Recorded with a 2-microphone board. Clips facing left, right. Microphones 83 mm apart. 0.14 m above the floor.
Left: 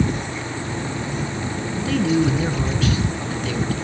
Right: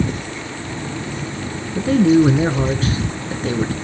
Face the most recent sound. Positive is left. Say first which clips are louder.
# right 7 dB
turn(degrees=-35)  # may be behind; listen again after turning